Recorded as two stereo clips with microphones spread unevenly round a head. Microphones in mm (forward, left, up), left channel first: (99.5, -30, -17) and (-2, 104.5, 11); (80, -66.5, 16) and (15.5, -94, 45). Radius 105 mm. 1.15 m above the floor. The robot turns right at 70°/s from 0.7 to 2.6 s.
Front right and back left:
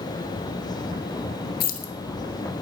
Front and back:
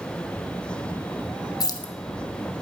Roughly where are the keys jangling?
Ahead.